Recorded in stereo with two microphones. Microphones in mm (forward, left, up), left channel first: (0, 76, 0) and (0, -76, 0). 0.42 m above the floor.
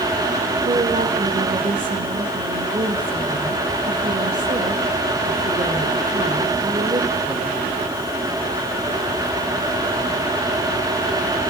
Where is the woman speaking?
40° right (ahead or behind), 1.7 m.